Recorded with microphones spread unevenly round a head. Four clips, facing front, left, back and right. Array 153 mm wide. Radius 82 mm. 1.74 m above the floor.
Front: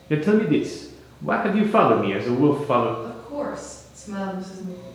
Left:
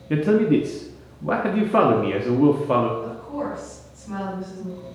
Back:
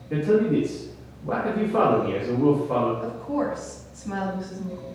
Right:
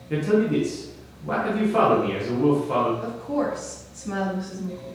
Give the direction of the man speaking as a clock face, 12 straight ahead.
12 o'clock.